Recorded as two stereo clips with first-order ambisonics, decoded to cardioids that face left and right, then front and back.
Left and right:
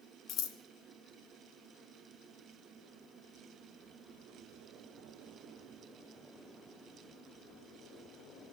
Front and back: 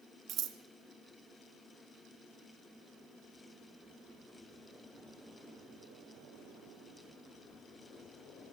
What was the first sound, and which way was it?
Scissors, 130° left.